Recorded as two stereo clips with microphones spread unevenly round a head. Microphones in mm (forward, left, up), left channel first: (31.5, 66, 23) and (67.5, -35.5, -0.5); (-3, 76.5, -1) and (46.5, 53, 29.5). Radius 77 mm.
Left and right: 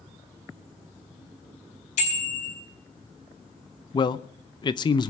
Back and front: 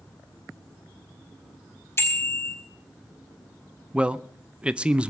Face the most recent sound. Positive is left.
turn(degrees=85)